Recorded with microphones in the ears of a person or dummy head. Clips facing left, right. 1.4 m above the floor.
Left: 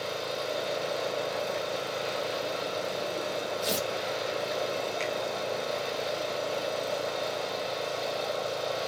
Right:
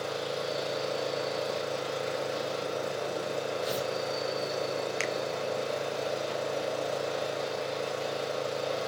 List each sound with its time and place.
0.0 s an engine running: 25° right (ahead or behind), 3.5 m
3.6 s tearing paper: 35° left (ahead or behind), 1.8 m
5.0 s a finger snap: 65° right (ahead or behind), 0.9 m